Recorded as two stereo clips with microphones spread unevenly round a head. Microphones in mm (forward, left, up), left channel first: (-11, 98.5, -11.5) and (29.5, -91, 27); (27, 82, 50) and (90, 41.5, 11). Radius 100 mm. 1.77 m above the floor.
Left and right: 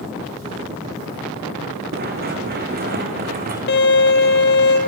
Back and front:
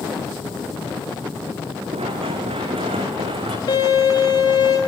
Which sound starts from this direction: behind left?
A violin, at 3.7 s.